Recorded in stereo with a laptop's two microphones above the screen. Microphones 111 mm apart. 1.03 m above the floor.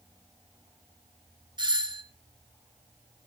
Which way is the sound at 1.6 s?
45° right (ahead or behind).